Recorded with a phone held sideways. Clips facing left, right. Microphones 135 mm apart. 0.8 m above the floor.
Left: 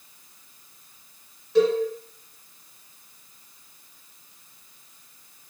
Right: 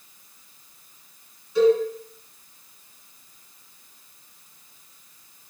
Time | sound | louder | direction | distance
1.6 | a cowbell | right 2 dB | 85° left | 1.8 m